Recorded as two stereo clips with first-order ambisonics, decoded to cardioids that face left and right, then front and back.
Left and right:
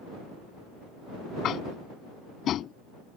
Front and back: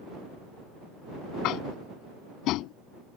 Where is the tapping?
35° left.